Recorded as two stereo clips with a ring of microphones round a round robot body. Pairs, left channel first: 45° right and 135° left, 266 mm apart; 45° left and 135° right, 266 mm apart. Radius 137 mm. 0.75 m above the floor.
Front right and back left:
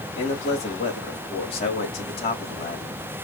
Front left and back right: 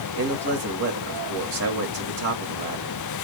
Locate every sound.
0.2 s a man speaking: 110° right, 2 m